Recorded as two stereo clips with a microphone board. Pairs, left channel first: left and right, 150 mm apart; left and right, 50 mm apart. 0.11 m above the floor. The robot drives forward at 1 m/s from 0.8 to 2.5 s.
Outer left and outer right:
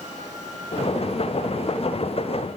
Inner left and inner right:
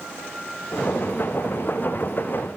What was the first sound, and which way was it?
Only background noise.